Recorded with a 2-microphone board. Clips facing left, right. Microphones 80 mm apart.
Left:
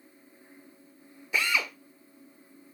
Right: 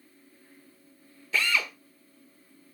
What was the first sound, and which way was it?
A drill, 15° left (ahead or behind).